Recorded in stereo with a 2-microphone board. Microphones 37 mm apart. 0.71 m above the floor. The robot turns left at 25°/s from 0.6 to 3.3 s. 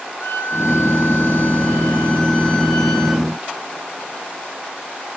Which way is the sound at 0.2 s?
80° left.